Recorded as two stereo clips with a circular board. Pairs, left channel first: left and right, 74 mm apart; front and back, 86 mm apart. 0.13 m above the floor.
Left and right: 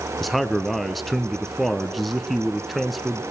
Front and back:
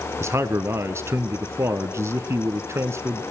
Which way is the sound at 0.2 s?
Straight behind.